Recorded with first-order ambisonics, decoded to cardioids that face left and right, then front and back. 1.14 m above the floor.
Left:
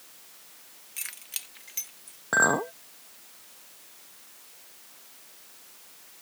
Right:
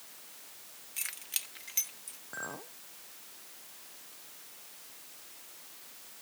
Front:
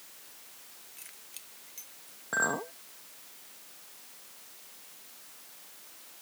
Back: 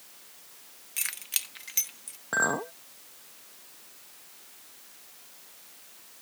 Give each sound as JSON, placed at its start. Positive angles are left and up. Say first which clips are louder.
{"t": 1.0, "sound": "keys jangling", "louder": "even, back 19 dB", "azimuth_deg": 175}
{"t": 2.3, "sound": "a clink", "louder": "left 19 dB, back 3 dB", "azimuth_deg": 100}